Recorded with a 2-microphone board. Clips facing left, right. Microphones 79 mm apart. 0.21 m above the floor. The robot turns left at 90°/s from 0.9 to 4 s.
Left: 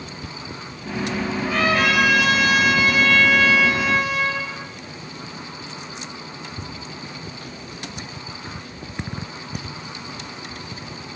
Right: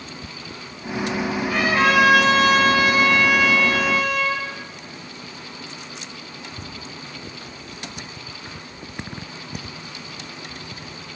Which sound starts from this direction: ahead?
A trumpet, at 1.4 s.